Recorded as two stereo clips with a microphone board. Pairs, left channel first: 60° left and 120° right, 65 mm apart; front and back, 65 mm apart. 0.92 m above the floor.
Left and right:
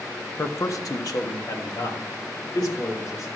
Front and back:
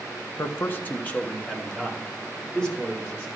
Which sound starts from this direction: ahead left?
A man speaking, at 0.4 s.